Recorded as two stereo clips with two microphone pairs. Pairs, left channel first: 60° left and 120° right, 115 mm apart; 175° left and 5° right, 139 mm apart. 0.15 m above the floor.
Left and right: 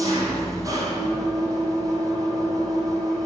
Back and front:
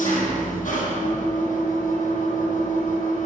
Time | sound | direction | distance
0.0 | an engine running | 175° right | 2.5 m